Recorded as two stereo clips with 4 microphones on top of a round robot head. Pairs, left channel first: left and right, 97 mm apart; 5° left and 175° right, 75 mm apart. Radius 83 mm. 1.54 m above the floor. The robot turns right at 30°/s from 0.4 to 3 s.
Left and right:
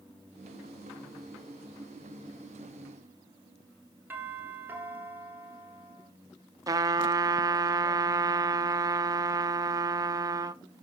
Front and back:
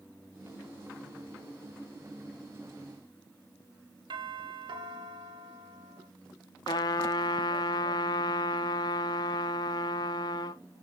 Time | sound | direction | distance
4.1 | a doorbell | 160° right | 3.5 m
6.7 | a trumpet | 35° right | 1.3 m